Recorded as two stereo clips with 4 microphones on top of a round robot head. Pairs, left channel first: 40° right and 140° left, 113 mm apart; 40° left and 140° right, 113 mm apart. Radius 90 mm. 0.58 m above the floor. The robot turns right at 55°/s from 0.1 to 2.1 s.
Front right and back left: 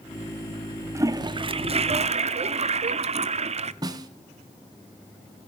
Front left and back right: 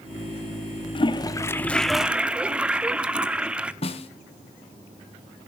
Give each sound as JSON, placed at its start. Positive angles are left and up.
{"t": 0.9, "sound": "a toilet flushing", "azimuth_deg": 75, "distance_m": 0.8}
{"t": 3.8, "sound": "a snare drum", "azimuth_deg": 80, "distance_m": 1.1}